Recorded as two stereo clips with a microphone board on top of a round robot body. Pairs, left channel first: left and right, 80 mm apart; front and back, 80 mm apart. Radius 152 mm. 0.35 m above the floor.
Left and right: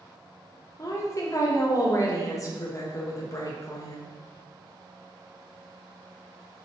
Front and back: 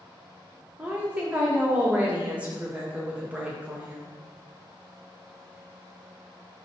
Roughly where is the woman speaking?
Behind left.